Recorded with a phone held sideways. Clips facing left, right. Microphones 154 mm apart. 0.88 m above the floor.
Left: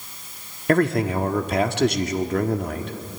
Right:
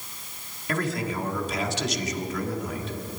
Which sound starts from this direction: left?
A man speaking, at 0.7 s.